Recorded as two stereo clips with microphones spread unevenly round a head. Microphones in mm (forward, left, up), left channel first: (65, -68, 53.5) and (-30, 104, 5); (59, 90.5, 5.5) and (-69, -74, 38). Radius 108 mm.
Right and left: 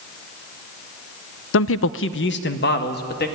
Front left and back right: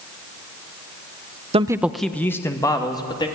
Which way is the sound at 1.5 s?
65° right.